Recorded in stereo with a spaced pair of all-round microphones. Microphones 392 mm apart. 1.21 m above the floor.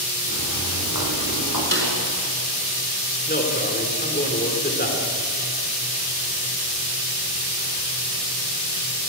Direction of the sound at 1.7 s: 30° right (ahead or behind).